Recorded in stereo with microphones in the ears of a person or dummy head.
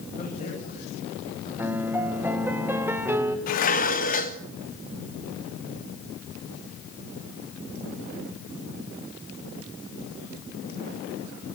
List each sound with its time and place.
0.2 s a man speaking: 40° left (ahead or behind), 9 m
1.6 s a piano: 10° right (ahead or behind), 2 m
3.5 s dishes clattering: 50° left (ahead or behind), 1.5 m